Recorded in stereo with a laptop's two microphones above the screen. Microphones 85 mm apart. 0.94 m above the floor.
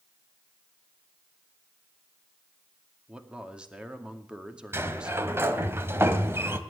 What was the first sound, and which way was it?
A man speaking, 10° right (ahead or behind).